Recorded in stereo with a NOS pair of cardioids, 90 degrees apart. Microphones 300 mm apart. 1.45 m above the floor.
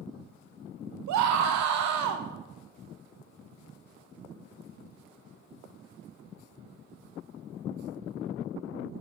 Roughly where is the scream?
Right.